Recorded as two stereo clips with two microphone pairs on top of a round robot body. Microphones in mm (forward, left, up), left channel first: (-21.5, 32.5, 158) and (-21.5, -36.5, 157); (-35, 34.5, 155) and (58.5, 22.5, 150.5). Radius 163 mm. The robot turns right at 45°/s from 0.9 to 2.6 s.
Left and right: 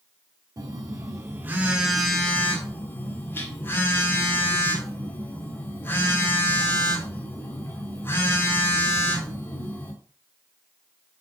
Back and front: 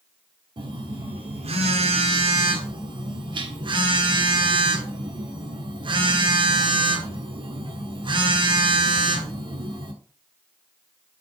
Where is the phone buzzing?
50° right, 1.6 m; by 9.9 s 30° left, 1.6 m.